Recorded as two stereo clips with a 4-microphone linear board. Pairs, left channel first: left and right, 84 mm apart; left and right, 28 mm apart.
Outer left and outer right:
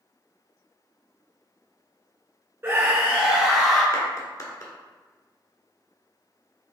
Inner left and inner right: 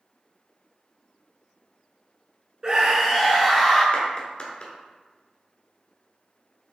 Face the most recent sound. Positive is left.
turn(degrees=45)  # may be behind; listen again after turning